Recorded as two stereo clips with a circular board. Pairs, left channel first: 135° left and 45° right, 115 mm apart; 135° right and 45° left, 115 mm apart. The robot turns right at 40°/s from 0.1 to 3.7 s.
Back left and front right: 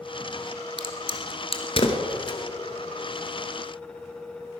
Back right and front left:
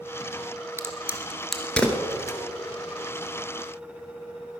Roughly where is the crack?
Left.